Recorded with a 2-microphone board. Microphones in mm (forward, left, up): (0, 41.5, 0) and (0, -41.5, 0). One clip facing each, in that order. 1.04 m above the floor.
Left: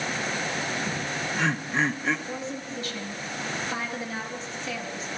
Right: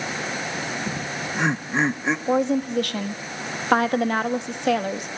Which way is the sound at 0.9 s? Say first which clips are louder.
Right 1 dB; 20° right (ahead or behind).